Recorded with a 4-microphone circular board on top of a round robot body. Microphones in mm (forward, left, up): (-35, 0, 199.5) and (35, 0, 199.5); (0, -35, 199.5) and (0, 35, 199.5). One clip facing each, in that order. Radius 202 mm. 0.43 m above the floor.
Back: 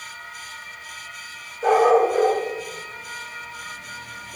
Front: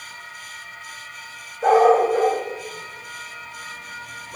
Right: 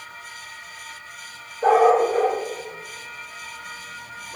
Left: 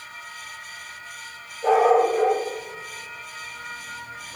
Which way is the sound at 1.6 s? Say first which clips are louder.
Front 1 dB, right 2 dB; 55° right.